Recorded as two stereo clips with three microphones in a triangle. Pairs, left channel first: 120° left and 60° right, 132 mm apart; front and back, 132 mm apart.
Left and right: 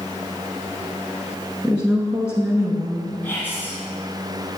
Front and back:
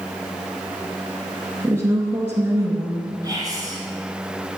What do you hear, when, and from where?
1.6 s a woman speaking: 130° right, 1.3 m
3.2 s whispering: straight behind, 1.5 m